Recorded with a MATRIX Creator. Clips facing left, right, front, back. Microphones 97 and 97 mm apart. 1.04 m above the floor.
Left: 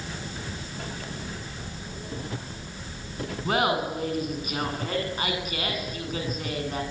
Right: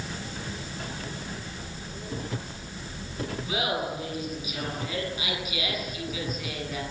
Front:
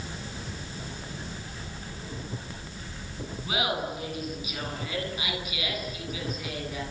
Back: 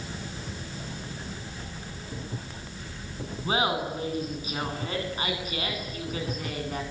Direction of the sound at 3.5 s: 125° left.